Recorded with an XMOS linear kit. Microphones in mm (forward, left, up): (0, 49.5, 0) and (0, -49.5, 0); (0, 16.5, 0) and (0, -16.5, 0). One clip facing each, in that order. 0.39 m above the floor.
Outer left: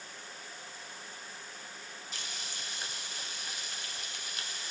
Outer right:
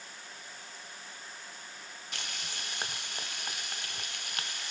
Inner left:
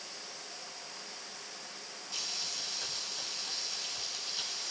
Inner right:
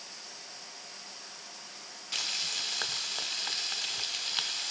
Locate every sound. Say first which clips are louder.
2.1 s frying: outer right 4 dB, inner right 6 dB; 55° right (ahead or behind), 0.6 m